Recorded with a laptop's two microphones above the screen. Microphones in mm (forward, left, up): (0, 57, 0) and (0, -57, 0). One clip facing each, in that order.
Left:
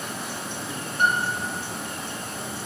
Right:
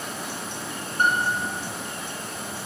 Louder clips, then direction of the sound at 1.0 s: Right 1 dB; 40° right (ahead or behind).